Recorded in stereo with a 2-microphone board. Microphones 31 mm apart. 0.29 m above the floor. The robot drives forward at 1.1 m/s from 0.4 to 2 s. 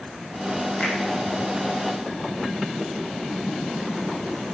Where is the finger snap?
35° left (ahead or behind), 9 m.